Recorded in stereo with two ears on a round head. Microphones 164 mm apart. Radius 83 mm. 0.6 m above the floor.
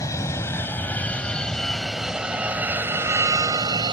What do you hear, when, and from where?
0.0 s an aircraft: 15° left (ahead or behind); by 3.9 s 25° right (ahead or behind)